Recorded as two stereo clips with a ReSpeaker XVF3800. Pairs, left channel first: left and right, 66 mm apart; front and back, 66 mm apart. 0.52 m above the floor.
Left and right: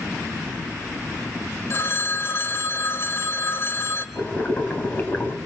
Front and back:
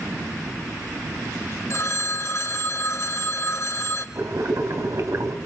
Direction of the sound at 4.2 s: 145° left.